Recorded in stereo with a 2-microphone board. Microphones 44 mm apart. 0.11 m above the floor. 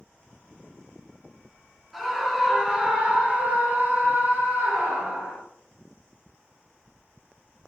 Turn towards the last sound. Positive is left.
turn(degrees=-35)  # may be behind; listen again after turning